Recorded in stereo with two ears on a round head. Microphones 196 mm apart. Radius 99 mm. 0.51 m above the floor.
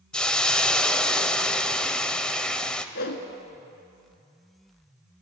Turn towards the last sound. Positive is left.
turn(degrees=50)  # may be behind; listen again after turning